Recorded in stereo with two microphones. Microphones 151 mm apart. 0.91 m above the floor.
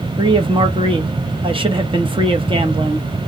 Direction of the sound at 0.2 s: 35° right (ahead or behind).